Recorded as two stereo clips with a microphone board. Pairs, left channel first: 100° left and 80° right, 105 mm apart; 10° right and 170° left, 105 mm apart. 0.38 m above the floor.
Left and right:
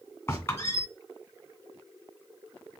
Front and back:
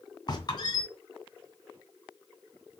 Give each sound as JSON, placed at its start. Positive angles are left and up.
{"t": 0.3, "sound": "a squeak", "azimuth_deg": 35, "distance_m": 2.0}